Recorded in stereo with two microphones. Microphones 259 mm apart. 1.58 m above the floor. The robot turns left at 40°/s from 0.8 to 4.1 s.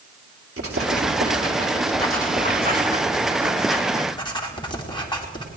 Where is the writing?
60° right (ahead or behind), 2.5 m; by 5.5 s 15° left (ahead or behind), 2.5 m.